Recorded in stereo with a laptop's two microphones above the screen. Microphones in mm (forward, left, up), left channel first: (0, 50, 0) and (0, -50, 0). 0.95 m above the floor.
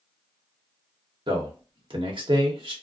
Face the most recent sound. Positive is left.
turn(degrees=-55)  # may be behind; listen again after turning